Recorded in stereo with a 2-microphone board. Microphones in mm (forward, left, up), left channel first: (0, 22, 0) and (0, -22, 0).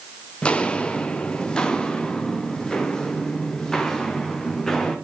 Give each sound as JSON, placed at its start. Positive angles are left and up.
{"t": 0.4, "sound": "footsteps", "side_deg": 20, "distance_m": 2.0}